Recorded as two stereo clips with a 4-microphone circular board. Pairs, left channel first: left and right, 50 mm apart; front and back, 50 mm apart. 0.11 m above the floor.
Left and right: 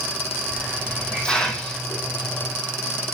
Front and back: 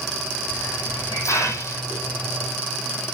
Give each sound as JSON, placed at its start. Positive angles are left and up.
{"t": 0.5, "sound": "a hiss", "azimuth_deg": 15, "distance_m": 2.5}